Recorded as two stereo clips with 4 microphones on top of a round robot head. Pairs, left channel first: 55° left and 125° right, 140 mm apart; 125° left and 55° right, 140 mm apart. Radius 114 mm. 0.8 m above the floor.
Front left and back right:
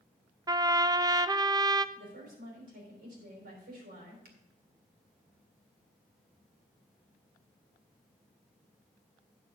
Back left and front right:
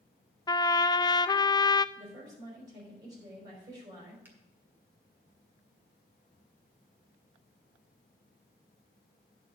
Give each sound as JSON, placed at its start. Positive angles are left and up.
{"t": 0.5, "sound": "a trumpet", "azimuth_deg": 180, "distance_m": 0.5}
{"t": 1.9, "sound": "a woman speaking", "azimuth_deg": -120, "distance_m": 5.0}
{"t": 4.2, "sound": "a finger snap", "azimuth_deg": -130, "distance_m": 1.9}